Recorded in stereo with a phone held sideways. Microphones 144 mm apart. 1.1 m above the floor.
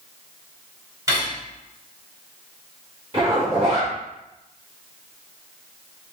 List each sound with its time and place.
1.1 s cutlery clinking: 20° right (ahead or behind), 2.5 m
3.1 s a zipper: 35° right (ahead or behind), 2 m